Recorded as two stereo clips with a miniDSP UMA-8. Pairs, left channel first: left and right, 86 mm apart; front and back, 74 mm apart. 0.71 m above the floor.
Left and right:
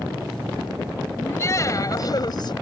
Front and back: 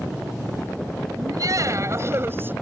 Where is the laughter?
150° left; by 2.5 s 120° left.